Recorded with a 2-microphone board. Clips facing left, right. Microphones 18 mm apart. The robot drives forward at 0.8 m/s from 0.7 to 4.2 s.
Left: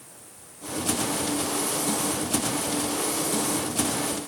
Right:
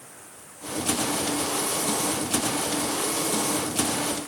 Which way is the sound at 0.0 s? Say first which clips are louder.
Right 3 dB; 45° right (ahead or behind).